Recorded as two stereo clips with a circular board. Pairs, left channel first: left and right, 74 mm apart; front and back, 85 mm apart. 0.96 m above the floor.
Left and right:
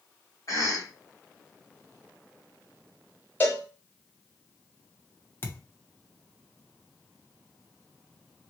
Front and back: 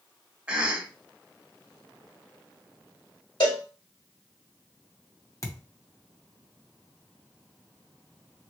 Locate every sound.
0.5 s a cough: 110° left, 1.2 m
3.4 s a cowbell: 25° left, 1.8 m
5.4 s a thud: 40° left, 0.7 m